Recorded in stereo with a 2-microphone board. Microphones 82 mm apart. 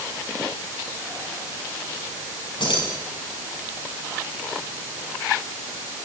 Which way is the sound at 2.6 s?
80° left.